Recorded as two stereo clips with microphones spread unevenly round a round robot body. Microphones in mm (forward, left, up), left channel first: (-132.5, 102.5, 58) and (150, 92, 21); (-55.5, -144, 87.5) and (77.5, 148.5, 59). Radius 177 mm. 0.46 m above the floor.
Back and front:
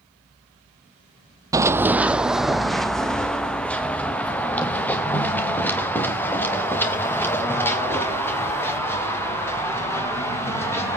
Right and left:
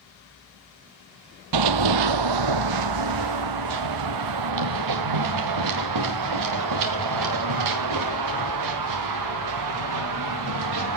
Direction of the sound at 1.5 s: 80° left.